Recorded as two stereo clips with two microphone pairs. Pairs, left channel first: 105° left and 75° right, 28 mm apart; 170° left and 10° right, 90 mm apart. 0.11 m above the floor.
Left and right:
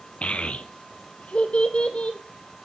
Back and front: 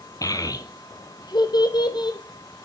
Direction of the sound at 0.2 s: 130° left.